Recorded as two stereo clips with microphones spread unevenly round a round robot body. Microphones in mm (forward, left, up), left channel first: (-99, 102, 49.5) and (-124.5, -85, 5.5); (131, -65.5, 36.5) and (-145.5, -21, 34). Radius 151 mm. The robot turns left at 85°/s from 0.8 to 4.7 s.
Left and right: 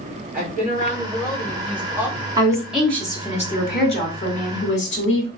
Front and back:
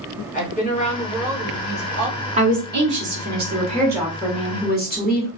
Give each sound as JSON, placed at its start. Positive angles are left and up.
{"t": 0.3, "sound": "a woman speaking", "azimuth_deg": -70, "distance_m": 1.9}
{"t": 2.4, "sound": "a woman speaking", "azimuth_deg": -135, "distance_m": 1.3}